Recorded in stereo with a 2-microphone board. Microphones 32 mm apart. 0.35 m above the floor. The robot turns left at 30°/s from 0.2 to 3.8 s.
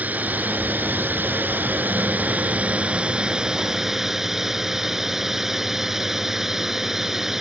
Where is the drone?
60° right; by 7.4 s 170° right.